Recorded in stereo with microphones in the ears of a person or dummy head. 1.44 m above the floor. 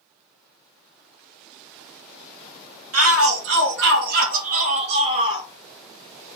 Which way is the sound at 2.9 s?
80° right.